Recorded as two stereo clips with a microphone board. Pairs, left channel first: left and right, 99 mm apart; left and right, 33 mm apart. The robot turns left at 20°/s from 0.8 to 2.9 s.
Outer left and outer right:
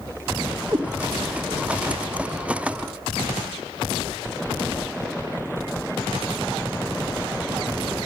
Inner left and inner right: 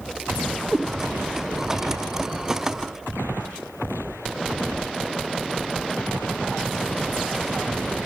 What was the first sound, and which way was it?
A cat meowing, 35° right (ahead or behind).